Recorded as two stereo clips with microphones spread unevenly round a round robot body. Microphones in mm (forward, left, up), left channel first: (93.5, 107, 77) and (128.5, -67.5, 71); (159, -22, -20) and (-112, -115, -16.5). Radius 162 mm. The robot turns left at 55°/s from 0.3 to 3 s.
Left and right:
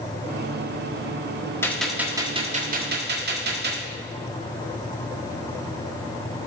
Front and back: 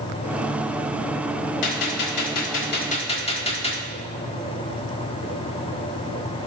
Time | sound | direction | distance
1.6 | a gunshot | 25° left | 1.5 m